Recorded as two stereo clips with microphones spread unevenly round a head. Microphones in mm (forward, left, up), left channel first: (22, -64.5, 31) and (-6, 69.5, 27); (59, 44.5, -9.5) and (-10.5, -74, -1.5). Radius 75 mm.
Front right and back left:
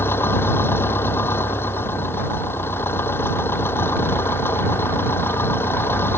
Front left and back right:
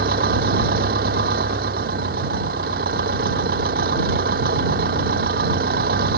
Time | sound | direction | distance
0.0 | an engine running | 155° right | ?